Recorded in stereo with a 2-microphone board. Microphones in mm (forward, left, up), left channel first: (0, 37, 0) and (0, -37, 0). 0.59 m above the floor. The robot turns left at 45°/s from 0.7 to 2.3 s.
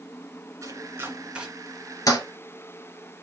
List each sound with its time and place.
0.6 s chopping: 45° right (ahead or behind), 2 m; by 1.5 s 10° right (ahead or behind), 2 m
2.1 s a toilet flushing: 60° left (ahead or behind), 1.9 m; by 2.2 s 50° left (ahead or behind), 1.9 m